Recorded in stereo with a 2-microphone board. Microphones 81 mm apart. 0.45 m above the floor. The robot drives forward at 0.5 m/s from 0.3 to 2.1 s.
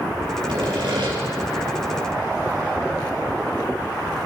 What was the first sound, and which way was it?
Sawing, 80° right.